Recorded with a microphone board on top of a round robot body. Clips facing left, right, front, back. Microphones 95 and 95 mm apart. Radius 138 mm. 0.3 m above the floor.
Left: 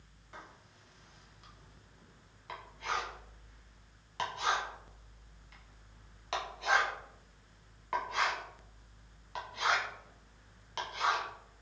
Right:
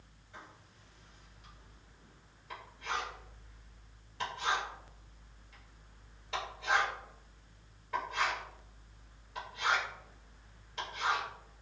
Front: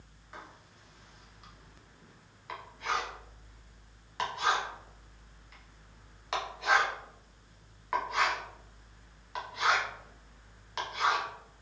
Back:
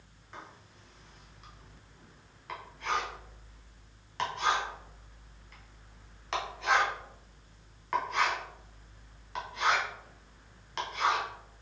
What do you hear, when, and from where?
0.3 s writing: 85° left, 0.8 m